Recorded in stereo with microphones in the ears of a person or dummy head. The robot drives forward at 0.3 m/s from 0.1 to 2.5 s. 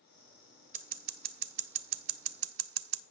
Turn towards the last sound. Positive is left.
turn(degrees=-75)  # may be behind; listen again after turning